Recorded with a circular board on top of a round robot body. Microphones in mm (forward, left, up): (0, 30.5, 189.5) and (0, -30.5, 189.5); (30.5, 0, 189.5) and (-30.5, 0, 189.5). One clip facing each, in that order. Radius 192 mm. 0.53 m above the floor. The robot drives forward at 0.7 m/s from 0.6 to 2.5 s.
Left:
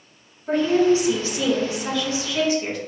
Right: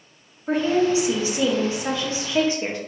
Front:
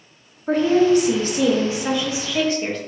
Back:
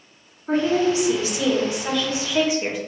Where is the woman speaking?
20° right, 1.5 m; by 2.8 s 115° right, 1.0 m.